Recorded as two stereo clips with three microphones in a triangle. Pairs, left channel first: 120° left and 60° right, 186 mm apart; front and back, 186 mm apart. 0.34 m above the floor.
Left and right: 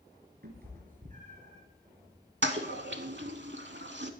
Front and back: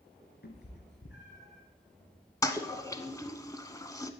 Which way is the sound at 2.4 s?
75° right.